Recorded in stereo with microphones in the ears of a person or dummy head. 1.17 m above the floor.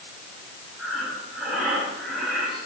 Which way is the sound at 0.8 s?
5° right (ahead or behind).